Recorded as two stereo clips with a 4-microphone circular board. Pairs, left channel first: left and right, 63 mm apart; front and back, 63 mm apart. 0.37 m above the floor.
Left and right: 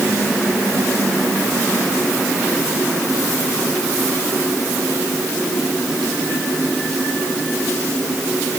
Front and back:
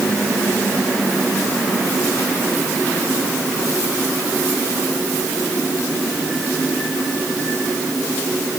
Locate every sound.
Only background noise.